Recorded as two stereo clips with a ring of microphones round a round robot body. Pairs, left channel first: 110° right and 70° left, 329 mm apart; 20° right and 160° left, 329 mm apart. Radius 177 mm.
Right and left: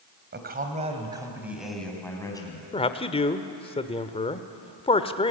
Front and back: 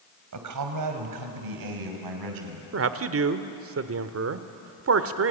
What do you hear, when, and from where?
0.3 s a man speaking: 125° left, 3 m; by 2.6 s 170° left, 4.5 m
2.7 s a man speaking: straight behind, 1.2 m